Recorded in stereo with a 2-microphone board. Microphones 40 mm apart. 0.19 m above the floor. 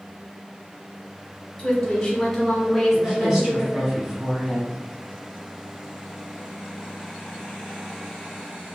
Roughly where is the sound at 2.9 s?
Centre.